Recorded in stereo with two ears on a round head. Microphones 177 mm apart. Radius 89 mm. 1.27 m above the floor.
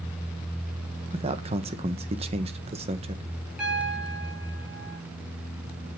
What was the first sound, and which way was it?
A man speaking, 30° right (ahead or behind).